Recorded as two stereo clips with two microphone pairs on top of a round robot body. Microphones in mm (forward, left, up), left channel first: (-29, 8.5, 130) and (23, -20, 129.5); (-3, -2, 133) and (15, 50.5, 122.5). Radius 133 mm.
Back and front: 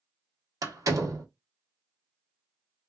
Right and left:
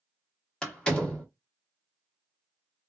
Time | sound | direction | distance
0.6 | a door slam | 35° right | 1.2 m